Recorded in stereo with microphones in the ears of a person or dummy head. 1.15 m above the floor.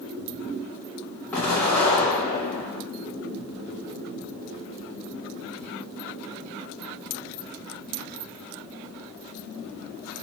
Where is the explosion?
10° left (ahead or behind), 0.9 m.